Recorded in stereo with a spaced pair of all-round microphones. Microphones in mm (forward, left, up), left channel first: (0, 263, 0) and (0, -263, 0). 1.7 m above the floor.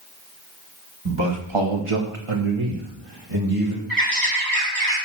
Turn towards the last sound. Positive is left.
turn(degrees=-40)  # may be behind; listen again after turning